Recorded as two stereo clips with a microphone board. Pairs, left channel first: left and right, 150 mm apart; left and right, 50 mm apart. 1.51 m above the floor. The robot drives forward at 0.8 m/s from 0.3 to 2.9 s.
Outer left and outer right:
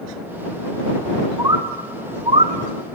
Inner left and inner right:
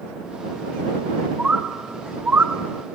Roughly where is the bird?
Right.